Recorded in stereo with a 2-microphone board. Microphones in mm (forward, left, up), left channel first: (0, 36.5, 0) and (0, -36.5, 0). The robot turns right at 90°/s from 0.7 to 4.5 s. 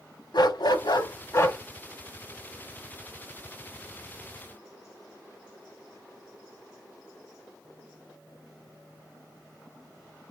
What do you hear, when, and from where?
0.3 s a dog barking: 80° left, 1.0 m; by 1.6 s 160° left, 1.0 m